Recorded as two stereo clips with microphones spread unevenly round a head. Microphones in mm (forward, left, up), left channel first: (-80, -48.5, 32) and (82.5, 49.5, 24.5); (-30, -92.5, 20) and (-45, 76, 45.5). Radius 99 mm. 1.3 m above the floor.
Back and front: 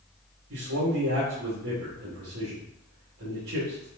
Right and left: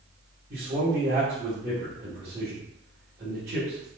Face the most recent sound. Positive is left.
turn(degrees=45)